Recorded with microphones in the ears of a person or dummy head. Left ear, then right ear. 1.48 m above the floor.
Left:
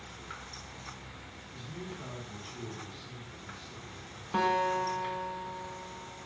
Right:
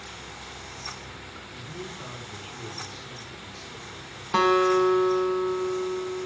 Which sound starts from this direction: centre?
A man speaking, at 1.5 s.